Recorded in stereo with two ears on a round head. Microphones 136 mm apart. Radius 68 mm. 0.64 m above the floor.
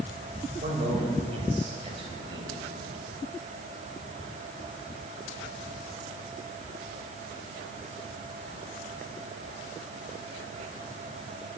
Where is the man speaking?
50° right (ahead or behind), 4 m; by 2.5 s 30° right (ahead or behind), 4 m.